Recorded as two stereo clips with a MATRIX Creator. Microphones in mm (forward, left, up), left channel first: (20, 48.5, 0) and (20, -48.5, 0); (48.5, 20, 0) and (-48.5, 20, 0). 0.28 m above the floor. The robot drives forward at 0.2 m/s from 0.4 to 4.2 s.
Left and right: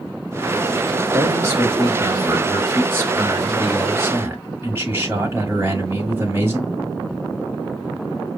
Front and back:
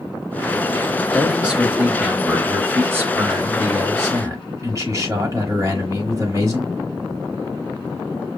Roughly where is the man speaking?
Right.